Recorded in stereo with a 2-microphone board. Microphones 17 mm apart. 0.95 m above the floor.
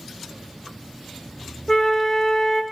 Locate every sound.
1.7 s a flute: 25° left (ahead or behind), 0.5 m